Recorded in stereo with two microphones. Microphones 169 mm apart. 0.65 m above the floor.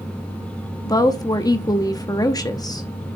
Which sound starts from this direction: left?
A woman speaking, at 0.8 s.